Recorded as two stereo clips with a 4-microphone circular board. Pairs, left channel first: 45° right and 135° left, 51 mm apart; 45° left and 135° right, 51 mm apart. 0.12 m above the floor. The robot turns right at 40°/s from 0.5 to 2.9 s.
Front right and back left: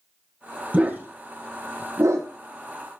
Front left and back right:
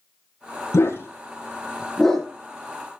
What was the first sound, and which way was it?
A dog barking, 70° left.